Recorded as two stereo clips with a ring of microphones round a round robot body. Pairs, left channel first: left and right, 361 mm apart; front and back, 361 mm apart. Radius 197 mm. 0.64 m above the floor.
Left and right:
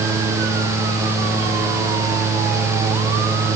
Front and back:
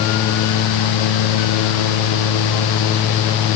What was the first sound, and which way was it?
Only background noise.